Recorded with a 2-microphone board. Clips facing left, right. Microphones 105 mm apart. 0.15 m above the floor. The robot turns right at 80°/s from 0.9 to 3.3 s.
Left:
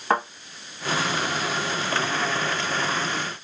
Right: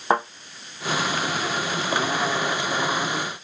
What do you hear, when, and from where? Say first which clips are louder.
0.1 s a thud: right 1 dB; 25° right (ahead or behind), 2 m